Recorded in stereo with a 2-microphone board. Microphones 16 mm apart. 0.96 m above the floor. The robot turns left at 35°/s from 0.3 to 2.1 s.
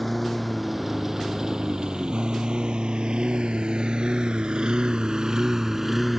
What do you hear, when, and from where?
0.0 s a lawn mower: 5° left (ahead or behind); by 6.2 s 15° right (ahead or behind)